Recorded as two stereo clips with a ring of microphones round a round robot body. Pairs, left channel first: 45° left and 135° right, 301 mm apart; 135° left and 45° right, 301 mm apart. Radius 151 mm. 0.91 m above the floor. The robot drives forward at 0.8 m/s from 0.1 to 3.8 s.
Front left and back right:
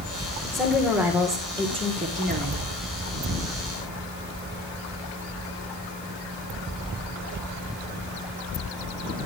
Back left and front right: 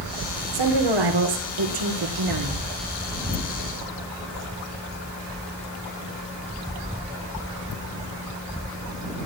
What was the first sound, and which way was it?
A woman speaking, 45° right.